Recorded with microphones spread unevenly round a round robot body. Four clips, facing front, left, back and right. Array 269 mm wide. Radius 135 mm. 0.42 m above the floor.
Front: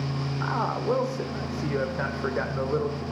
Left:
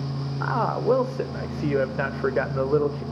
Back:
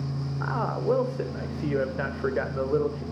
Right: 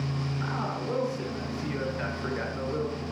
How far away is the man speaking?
About 1.6 m.